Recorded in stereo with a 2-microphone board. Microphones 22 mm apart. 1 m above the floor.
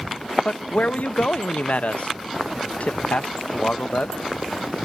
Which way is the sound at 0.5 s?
65° left (ahead or behind).